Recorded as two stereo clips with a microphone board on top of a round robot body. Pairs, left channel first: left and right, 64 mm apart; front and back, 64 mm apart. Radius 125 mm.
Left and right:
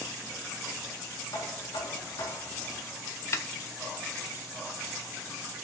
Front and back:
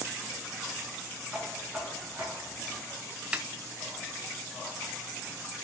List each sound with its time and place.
1.3 s knocking: 95° left, 4.5 m
3.3 s a snare drum: 115° left, 1.2 m